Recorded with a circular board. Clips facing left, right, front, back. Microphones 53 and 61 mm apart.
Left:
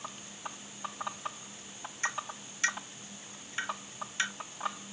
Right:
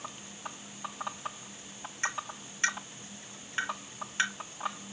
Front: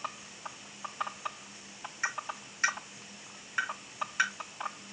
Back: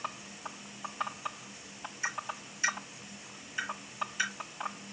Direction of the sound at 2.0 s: 35° right.